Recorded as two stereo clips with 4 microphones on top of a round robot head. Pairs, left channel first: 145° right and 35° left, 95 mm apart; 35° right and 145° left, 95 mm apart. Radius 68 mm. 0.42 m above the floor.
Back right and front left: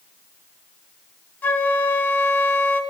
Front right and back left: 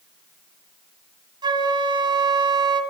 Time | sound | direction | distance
1.4 | a flute | 150° left | 1.4 m